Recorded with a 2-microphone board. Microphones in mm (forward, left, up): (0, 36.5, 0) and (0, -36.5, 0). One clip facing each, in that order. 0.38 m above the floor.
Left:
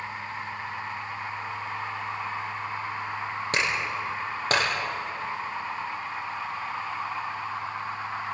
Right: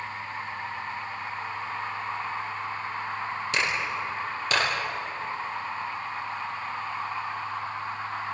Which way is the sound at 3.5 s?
45° left (ahead or behind).